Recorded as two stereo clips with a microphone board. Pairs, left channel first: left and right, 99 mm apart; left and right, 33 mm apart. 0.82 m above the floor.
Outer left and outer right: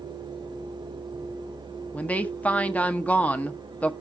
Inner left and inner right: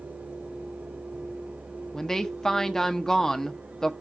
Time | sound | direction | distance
1.9 | a woman speaking | 15° left (ahead or behind) | 0.9 m